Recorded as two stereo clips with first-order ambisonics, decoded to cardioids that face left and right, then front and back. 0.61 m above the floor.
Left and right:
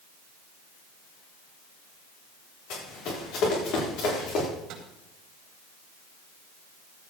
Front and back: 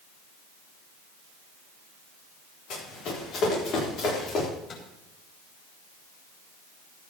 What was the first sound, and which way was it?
Running footsteps, 50° left.